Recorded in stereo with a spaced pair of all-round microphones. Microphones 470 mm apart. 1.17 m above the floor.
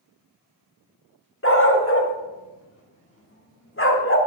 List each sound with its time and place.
1.4 s a dog barking: 25° left (ahead or behind), 1.2 m